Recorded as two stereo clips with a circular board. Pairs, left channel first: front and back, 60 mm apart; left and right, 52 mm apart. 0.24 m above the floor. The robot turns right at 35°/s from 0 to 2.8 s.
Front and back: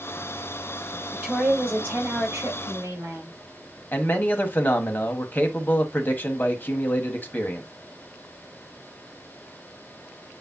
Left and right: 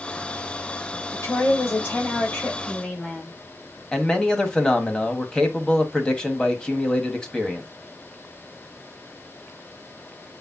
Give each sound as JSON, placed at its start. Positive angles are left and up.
{"t": 1.1, "sound": "a woman speaking", "azimuth_deg": 95, "distance_m": 5.5}
{"t": 3.9, "sound": "a man speaking", "azimuth_deg": 30, "distance_m": 1.3}